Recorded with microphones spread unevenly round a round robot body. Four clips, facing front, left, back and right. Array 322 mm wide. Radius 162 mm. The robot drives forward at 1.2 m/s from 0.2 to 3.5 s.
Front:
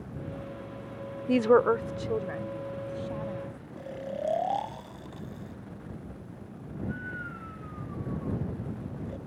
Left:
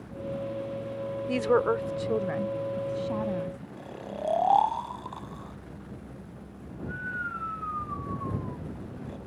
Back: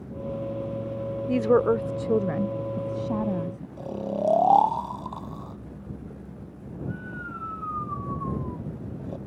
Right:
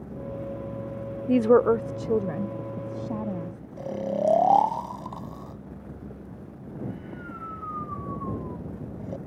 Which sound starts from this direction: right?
A woman speaking, at 1.3 s.